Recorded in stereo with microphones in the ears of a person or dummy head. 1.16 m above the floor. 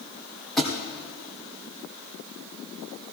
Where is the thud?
Centre (ahead or behind), 2 m.